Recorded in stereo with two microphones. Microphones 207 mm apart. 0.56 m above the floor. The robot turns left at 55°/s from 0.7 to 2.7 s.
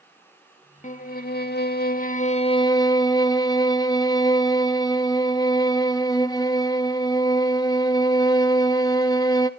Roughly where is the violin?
Behind left.